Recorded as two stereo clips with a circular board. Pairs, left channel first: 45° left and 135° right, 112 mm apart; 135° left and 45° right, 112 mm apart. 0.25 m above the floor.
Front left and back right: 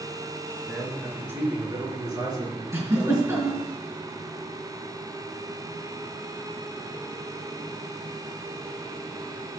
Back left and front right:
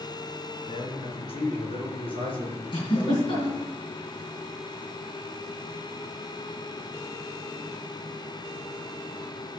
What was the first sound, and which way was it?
A man speaking, 150° left.